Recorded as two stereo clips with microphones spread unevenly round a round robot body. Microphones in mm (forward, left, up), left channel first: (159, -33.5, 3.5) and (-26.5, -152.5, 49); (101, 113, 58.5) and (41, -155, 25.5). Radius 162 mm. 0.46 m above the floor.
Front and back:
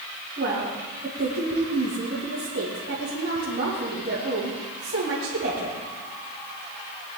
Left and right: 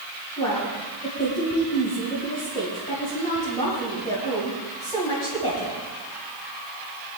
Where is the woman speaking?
150° left, 3 m.